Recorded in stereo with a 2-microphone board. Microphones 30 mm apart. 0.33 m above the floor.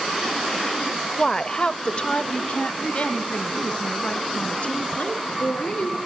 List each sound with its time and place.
1.2 s a woman speaking: 20° left (ahead or behind), 0.8 m; by 6.0 s 55° left (ahead or behind), 4.5 m